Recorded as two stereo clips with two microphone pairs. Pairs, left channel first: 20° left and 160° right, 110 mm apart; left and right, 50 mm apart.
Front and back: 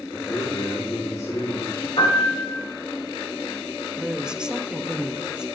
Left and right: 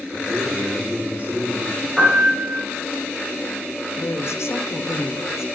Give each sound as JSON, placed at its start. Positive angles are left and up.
{"t": 0.1, "sound": "a man speaking", "azimuth_deg": -35, "distance_m": 3.5}
{"t": 2.0, "sound": "a piano", "azimuth_deg": -15, "distance_m": 6.5}
{"t": 4.0, "sound": "a woman speaking", "azimuth_deg": 120, "distance_m": 1.0}